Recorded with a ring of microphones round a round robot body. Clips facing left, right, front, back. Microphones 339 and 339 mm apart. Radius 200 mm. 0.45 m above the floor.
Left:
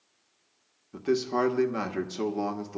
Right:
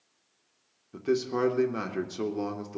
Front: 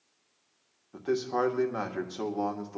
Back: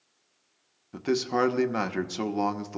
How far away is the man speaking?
About 1.1 m.